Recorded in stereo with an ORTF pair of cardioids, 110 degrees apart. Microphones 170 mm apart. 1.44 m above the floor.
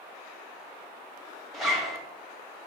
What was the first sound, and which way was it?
A zipper, straight ahead.